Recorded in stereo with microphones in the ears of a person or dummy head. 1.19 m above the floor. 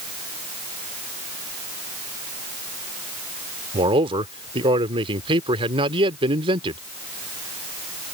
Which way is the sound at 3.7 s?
25° right (ahead or behind).